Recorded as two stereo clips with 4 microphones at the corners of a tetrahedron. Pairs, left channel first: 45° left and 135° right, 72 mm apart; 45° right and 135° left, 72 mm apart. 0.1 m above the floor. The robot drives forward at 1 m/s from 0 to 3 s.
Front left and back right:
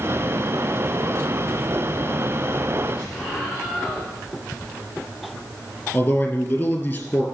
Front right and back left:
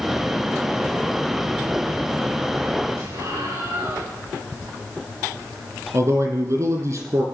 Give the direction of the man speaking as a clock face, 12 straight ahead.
8 o'clock.